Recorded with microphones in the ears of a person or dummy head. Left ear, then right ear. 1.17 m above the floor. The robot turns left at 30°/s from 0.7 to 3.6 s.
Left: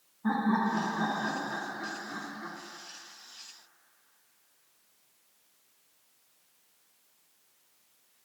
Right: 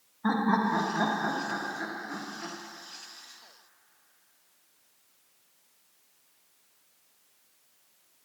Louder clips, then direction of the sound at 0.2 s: Right 2 dB; 115° right.